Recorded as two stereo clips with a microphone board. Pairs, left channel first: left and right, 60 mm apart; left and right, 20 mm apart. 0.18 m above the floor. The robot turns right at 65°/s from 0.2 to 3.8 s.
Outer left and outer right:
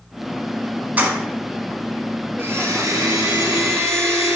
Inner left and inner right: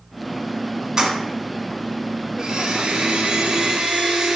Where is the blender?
145° right, 1.5 m; by 4.4 s 50° right, 1.5 m.